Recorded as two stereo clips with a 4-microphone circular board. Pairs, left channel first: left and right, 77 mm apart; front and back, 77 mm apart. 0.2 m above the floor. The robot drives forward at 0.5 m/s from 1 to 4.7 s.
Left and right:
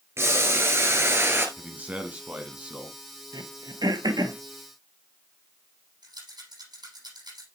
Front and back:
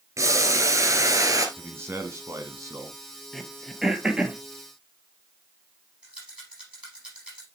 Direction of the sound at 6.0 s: 105° right.